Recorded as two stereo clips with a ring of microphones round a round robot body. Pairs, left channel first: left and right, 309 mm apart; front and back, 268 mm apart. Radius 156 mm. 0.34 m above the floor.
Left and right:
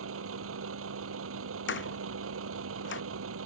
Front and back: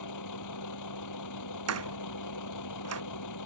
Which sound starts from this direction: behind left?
A door slam, at 1.7 s.